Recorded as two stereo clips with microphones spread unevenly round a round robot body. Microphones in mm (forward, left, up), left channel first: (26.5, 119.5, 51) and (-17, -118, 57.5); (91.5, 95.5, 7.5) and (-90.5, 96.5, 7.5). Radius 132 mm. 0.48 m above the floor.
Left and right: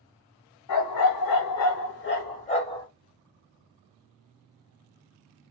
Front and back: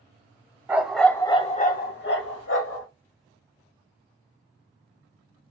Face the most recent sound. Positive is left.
turn(degrees=5)